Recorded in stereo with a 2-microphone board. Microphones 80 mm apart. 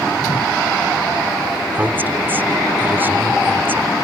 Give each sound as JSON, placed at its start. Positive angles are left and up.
{"t": 0.2, "sound": "a whoosh", "side_deg": 80}
{"t": 1.7, "sound": "a woman speaking", "side_deg": -25}